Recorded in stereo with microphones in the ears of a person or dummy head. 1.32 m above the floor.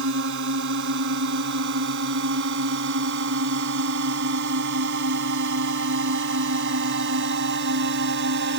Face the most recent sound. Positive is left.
turn(degrees=-55)  # may be behind; listen again after turning